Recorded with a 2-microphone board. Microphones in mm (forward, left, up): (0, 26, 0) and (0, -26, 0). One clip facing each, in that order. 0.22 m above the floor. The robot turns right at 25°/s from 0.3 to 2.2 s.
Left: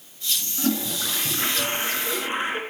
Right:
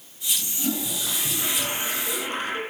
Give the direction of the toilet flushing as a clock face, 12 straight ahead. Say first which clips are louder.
Left 4 dB; 8 o'clock.